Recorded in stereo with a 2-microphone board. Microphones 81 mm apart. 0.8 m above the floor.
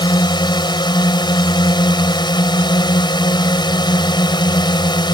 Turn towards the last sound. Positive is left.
turn(degrees=75)  # may be behind; listen again after turning